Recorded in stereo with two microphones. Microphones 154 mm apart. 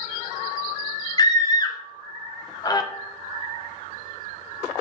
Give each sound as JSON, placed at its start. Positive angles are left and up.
{"t": 1.2, "sound": "a scream", "side_deg": 25, "distance_m": 0.9}